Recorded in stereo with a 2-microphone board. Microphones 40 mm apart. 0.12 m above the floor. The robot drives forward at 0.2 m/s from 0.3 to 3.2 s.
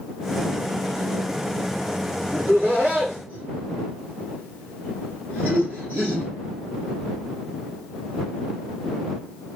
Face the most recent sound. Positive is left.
turn(degrees=-55)  # may be behind; listen again after turning